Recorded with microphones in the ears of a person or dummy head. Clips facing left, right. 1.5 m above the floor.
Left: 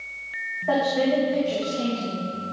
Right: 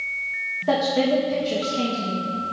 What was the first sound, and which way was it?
A woman speaking, 50° right (ahead or behind).